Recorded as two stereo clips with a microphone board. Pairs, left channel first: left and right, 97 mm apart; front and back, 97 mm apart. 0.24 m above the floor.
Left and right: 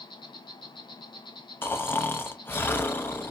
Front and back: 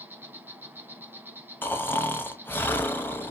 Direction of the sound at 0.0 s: 110° left.